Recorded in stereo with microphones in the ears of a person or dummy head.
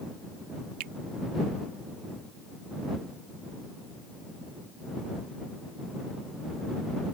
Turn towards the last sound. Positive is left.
turn(degrees=-50)  # may be behind; listen again after turning